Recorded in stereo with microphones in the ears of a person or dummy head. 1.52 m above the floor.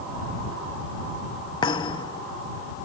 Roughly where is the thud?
Left.